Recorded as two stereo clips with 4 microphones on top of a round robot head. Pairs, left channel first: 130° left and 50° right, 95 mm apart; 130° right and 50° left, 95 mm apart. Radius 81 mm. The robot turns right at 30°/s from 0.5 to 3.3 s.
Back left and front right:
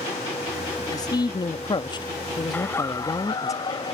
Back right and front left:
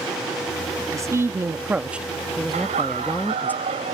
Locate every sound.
0.9 s a man speaking: 95° left; by 3.5 s 170° left
2.5 s laughter: 55° left; by 3.9 s 80° left